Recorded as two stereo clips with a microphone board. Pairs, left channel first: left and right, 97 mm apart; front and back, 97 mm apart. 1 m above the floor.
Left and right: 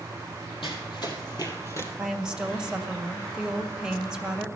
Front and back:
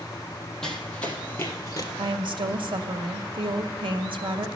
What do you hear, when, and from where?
0.6 s running footsteps: 85° left, 1.9 m; by 1.9 s 40° left, 1.5 m
1.9 s a woman speaking: 170° right, 1.0 m